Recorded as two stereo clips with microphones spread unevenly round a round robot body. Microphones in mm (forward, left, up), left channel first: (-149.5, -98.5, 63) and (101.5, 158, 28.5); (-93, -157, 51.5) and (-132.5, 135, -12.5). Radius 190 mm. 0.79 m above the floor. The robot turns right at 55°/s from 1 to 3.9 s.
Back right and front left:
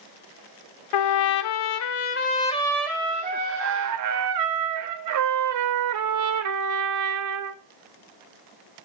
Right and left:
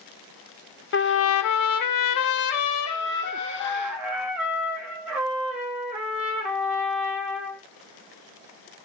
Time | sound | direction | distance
0.9 | a trumpet | 140° right | 0.7 m